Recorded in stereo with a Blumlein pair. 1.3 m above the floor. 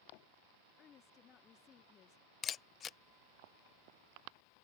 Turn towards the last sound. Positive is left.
turn(degrees=25)